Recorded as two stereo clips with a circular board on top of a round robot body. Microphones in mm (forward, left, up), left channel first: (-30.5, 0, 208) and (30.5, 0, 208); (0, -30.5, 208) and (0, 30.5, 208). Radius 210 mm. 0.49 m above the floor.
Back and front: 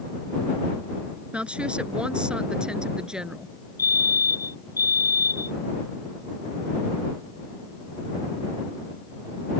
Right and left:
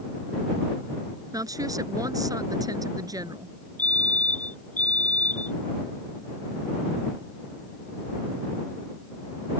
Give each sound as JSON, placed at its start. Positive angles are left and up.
{"t": 1.3, "sound": "a woman speaking", "azimuth_deg": 70}
{"t": 3.8, "sound": "a fire alarm", "azimuth_deg": -155}